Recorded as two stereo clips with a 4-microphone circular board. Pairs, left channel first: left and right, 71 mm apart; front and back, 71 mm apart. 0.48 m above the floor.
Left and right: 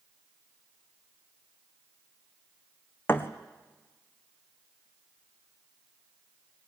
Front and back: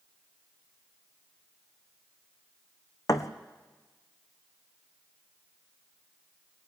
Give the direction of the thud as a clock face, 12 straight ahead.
11 o'clock.